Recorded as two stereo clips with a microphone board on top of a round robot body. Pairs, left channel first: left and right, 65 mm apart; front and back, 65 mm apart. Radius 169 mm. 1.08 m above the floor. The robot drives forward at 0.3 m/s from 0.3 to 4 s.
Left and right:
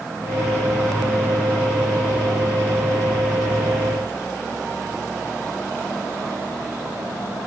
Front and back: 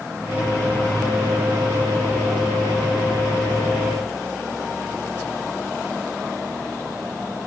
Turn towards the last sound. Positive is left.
No sound to turn to.